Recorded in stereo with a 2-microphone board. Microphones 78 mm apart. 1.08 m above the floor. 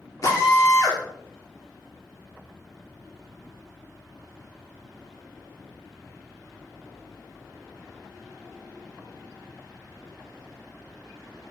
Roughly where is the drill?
Left.